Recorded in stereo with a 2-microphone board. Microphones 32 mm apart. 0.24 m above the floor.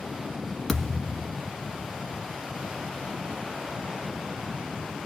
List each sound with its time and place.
0.7 s a thud: 5° left (ahead or behind), 1.1 m